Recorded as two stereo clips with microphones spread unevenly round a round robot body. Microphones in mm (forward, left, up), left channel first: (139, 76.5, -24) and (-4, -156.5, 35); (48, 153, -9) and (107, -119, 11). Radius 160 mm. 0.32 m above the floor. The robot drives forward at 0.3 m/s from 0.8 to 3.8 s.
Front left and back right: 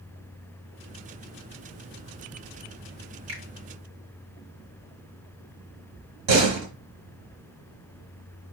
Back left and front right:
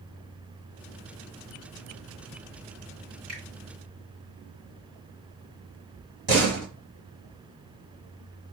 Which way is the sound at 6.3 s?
130° right.